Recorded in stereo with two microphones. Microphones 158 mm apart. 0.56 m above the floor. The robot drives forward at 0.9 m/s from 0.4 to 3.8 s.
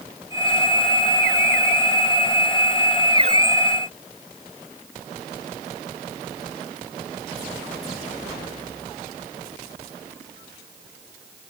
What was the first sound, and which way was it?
Only background noise.